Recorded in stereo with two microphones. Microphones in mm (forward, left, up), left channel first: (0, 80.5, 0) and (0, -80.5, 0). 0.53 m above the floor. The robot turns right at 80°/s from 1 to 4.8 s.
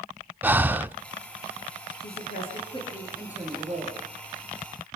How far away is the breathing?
About 0.5 m.